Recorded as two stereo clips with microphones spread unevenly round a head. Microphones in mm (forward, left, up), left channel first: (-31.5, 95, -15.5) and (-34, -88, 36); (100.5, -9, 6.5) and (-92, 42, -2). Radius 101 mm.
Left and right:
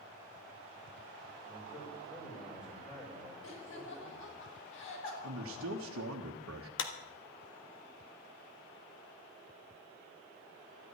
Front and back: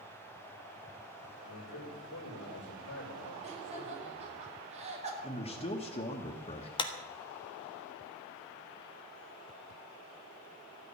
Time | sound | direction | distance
1.4 | a man speaking | 15° left | 6 m
3.4 | laughter | 105° left | 5 m
5.2 | a man speaking | 75° right | 1.2 m
6.8 | a clap | 50° left | 1.4 m